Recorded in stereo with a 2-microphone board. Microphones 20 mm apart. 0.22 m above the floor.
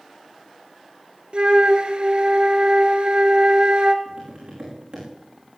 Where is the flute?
55° right (ahead or behind), 1.2 m.